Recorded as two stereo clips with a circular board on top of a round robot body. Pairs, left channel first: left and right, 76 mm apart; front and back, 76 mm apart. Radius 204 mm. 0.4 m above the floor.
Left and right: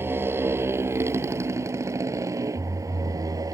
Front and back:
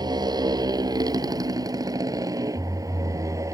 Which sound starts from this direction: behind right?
A motorcycle, at 0.0 s.